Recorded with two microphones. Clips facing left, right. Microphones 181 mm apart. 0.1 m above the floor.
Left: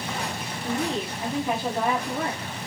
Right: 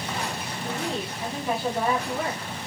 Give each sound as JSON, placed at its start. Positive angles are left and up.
{"t": 0.6, "sound": "a woman speaking", "side_deg": 15, "distance_m": 6.0}